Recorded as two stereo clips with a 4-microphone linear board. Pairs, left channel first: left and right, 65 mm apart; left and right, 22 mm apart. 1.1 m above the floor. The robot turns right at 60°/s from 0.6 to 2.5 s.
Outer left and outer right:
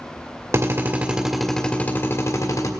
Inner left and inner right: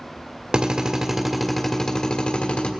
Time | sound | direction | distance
0.5 | a drill | 50° right | 1.5 m